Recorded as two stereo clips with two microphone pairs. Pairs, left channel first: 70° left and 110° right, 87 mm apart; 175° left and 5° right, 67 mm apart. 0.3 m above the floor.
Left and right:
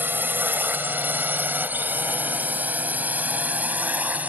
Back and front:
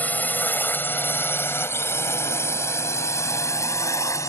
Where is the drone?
150° right; by 4.3 s 175° right.